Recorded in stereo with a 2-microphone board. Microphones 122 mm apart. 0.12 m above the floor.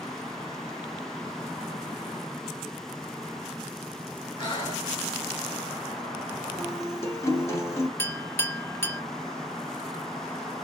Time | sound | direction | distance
4.4 | breathing | 35° left (ahead or behind) | 1.9 m
6.6 | a guitar | 25° left (ahead or behind) | 0.9 m
8.0 | a clink | 20° left (ahead or behind) | 0.6 m